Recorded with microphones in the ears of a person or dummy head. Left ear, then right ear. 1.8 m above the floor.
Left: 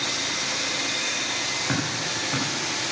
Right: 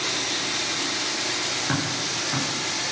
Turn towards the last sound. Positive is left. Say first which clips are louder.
# even
turn(degrees=0)  # may be behind; listen again after turning